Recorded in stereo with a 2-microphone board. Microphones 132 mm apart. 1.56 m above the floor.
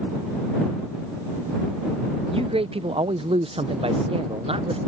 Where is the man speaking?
45° right (ahead or behind).